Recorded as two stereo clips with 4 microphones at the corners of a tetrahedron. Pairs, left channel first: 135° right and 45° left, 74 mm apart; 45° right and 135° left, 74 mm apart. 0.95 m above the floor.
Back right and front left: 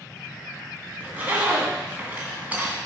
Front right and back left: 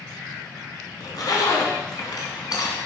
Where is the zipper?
20° right, 2.5 m.